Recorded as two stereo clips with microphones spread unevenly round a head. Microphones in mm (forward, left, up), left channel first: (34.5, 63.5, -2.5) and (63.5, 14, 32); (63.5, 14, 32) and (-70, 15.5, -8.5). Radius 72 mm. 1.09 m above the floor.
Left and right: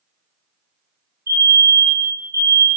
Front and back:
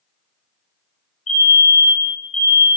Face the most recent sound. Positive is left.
turn(degrees=-20)